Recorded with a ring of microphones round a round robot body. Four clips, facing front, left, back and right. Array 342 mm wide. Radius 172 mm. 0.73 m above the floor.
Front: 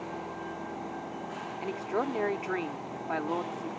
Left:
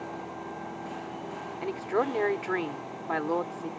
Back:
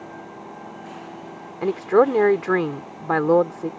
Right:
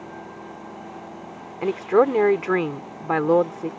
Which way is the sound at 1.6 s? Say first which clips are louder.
Right 10 dB, back 15 dB; 145° right.